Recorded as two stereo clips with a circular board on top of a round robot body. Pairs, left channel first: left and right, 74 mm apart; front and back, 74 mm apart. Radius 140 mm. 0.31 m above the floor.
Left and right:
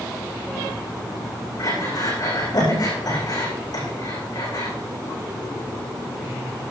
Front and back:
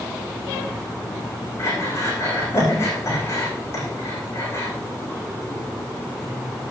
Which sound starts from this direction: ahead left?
Breathing, at 1.6 s.